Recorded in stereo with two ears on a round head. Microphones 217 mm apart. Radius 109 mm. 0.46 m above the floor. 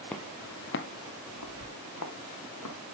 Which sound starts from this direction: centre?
Footsteps, at 0.1 s.